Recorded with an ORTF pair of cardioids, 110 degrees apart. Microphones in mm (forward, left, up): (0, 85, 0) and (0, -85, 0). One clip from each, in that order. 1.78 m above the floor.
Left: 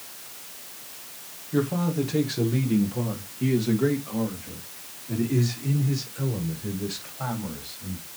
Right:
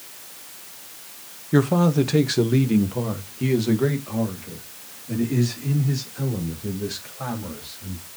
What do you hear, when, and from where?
1.5 s a man speaking: 60° right, 1.2 m; by 8.0 s 10° right, 4.5 m